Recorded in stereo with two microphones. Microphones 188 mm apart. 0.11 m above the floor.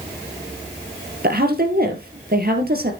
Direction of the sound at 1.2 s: 55° right (ahead or behind).